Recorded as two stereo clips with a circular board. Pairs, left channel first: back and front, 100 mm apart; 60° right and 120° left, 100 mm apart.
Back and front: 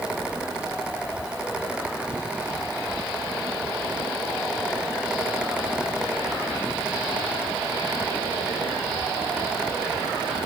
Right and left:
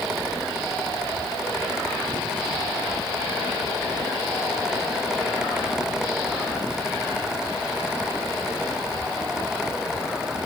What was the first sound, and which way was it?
Only background noise.